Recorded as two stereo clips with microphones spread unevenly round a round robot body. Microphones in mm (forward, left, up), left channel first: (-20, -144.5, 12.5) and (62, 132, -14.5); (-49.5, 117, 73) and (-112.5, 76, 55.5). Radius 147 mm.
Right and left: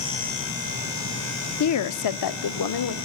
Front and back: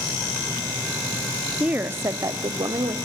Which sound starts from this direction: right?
A woman speaking, at 1.6 s.